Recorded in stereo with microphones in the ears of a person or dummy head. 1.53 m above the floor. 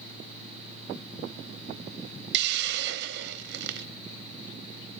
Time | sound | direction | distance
2.3 | a hiss | 65° right (ahead or behind) | 0.5 m